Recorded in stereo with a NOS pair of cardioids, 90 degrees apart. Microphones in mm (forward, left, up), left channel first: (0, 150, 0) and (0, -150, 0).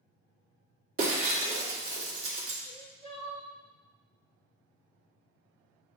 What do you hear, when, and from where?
1.0 s breaking glass: 50° right, 1.6 m
2.6 s crying: 20° right, 1.7 m